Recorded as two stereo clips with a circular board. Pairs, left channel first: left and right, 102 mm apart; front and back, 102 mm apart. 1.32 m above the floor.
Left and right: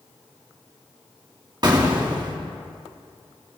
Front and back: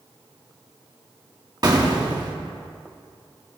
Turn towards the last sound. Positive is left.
turn(degrees=-135)